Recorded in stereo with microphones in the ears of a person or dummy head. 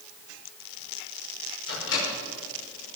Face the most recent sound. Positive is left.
turn(degrees=75)  # may be behind; listen again after turning